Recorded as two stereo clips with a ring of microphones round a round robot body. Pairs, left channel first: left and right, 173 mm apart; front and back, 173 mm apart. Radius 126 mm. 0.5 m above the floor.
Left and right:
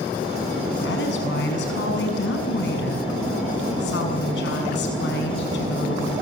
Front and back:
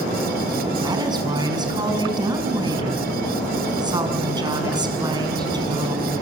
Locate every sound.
0.8 s a woman speaking: 115° left, 6 m